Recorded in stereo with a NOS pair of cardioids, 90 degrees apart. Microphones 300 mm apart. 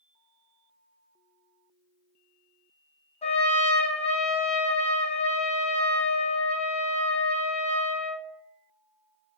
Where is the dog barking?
I don't hear a dog barking.